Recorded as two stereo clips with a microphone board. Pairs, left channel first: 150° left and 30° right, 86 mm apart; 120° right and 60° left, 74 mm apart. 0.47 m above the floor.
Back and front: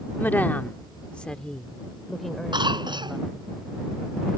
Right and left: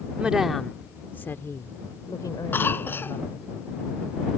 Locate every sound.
0.2 s a woman speaking: 115° left; by 3.4 s 120° right
2.5 s a cough: 55° right